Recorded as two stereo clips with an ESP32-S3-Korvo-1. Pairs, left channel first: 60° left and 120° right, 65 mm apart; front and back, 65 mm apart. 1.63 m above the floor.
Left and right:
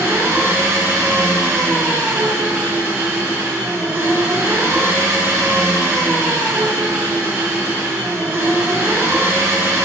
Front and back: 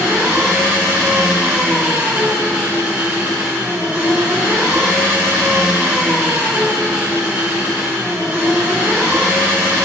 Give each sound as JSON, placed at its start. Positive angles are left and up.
{"t": 0.0, "sound": "an engine running", "azimuth_deg": -125, "distance_m": 1.4}